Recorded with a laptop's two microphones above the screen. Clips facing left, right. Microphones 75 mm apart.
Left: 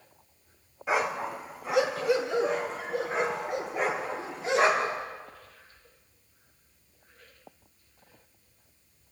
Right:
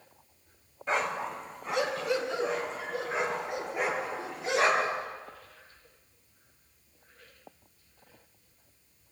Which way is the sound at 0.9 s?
10° left (ahead or behind).